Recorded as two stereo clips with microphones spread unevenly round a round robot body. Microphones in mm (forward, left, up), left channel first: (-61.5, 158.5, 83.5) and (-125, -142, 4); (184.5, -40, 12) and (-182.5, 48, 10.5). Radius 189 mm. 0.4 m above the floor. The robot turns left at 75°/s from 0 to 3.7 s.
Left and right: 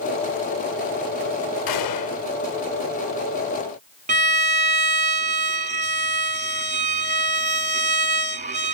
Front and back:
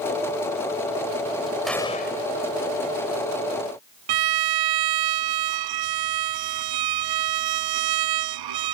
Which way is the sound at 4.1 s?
165° right.